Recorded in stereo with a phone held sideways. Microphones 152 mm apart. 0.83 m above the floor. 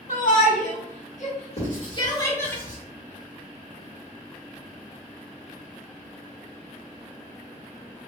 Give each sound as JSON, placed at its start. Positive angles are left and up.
{"t": 0.1, "sound": "a shout", "side_deg": 65, "distance_m": 1.4}
{"t": 1.6, "sound": "writing", "side_deg": 70, "distance_m": 1.4}